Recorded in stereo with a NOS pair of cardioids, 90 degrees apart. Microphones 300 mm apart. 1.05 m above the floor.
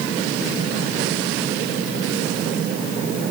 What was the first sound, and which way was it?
Only background noise.